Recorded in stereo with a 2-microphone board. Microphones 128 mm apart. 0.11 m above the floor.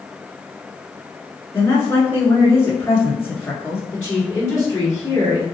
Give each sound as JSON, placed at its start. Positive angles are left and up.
{"t": 1.5, "sound": "a woman speaking", "side_deg": 20, "distance_m": 1.1}
{"t": 3.9, "sound": "a woman speaking", "side_deg": 15, "distance_m": 1.8}